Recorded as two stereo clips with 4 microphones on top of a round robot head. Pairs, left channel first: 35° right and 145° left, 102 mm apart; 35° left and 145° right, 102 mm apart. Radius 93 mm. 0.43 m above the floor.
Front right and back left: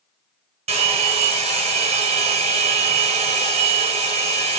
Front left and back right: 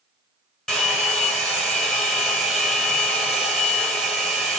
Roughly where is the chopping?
I don't hear chopping.